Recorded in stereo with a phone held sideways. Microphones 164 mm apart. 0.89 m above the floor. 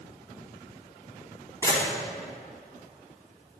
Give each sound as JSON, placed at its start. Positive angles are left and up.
{"t": 1.6, "sound": "a camera shutter", "side_deg": 20, "distance_m": 3.5}